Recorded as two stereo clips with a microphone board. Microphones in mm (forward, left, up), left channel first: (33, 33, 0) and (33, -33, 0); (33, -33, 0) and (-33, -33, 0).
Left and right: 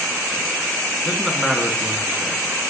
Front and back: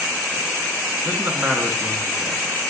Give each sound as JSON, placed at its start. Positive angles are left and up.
{"t": 1.1, "sound": "a man speaking", "azimuth_deg": -175, "distance_m": 1.1}